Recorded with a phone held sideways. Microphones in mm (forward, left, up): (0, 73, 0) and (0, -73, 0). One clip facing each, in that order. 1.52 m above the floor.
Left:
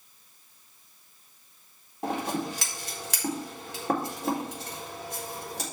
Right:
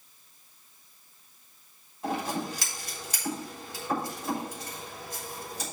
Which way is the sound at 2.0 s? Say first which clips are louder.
Left 1 dB; 85° left.